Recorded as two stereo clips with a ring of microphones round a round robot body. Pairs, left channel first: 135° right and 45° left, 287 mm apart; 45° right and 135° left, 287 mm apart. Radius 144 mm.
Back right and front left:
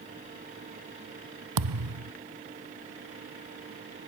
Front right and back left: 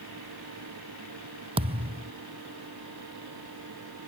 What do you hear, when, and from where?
1.6 s a thud: 65° left